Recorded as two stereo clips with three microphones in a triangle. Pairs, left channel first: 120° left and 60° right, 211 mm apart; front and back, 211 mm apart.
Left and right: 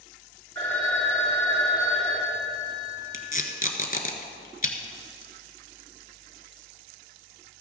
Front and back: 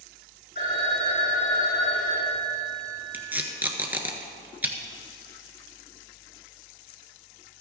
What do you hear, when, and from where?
0.6 s a phone ringing: 35° left, 5 m
3.1 s tape being pulled: 105° left, 1.3 m